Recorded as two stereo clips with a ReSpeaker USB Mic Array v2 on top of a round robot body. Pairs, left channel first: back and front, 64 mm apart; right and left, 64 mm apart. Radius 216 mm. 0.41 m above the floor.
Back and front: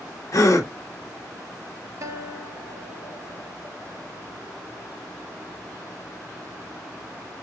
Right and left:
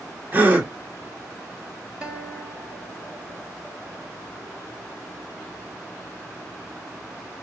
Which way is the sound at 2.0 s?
20° left.